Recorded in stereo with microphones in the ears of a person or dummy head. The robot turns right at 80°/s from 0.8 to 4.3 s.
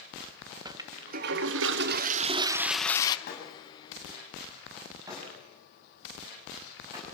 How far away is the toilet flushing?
About 1.1 m.